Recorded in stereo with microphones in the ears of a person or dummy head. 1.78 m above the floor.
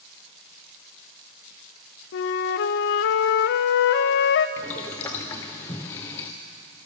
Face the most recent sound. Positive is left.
turn(degrees=15)  # may be behind; listen again after turning